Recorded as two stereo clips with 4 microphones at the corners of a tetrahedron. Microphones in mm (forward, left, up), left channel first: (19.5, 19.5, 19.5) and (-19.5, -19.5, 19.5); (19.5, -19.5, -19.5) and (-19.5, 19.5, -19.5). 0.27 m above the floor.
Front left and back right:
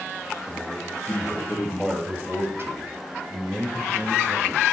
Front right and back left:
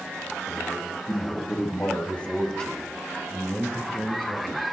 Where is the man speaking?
Straight ahead, 2 m; by 4.6 s 145° right, 3.5 m.